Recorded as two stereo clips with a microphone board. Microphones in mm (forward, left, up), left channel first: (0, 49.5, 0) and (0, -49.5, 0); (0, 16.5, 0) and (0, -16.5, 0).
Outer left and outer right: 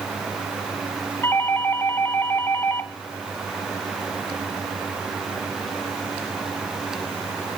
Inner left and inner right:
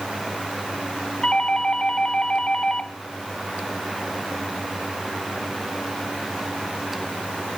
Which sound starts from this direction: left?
A doorbell, at 1.2 s.